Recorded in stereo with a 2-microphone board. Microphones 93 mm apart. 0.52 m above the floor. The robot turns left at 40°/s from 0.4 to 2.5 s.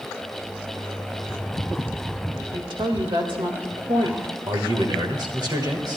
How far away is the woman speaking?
About 2 m.